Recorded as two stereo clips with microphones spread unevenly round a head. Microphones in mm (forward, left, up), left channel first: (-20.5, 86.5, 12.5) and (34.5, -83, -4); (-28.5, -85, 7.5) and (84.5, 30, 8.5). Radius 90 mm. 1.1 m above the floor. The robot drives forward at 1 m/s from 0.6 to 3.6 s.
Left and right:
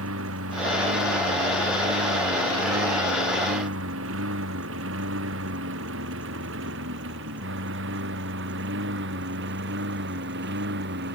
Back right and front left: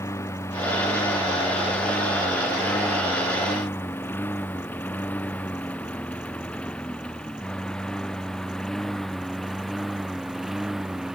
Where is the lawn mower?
60° right; by 11.2 s 40° right.